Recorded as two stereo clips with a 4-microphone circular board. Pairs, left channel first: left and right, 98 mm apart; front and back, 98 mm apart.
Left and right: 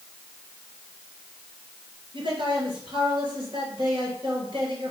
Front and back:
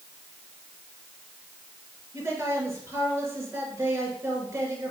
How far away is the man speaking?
About 3.5 m.